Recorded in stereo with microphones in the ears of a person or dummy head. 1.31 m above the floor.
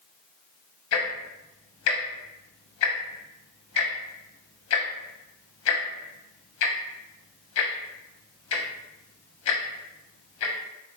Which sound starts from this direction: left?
Ticking, at 0.9 s.